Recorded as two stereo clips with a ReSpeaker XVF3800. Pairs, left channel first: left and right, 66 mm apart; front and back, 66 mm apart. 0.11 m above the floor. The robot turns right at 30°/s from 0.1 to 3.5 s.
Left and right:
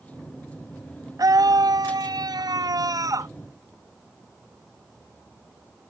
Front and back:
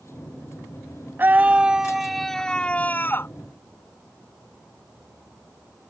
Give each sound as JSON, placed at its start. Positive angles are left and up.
{"t": 1.2, "sound": "a scream", "azimuth_deg": -120}